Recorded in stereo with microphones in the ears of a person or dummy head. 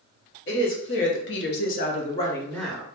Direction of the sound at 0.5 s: 60° left (ahead or behind).